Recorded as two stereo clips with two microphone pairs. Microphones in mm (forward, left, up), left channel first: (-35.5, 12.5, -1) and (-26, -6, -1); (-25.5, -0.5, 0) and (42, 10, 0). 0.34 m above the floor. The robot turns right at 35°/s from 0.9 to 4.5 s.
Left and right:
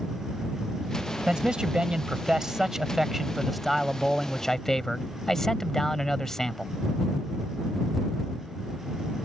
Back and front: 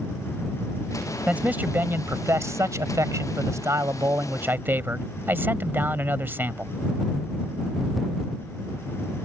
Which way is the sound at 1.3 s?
55° right.